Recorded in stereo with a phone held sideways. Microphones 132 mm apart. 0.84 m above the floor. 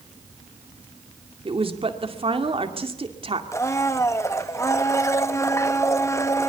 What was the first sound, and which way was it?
A woman speaking, 45° right (ahead or behind).